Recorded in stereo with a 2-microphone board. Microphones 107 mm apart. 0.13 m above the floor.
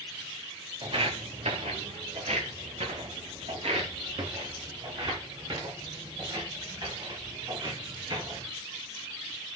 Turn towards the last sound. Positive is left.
turn(degrees=-40)  # may be behind; listen again after turning